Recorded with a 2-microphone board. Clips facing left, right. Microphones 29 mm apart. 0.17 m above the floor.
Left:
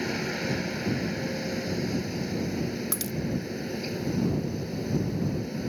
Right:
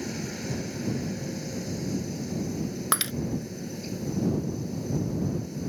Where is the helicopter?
30° left (ahead or behind).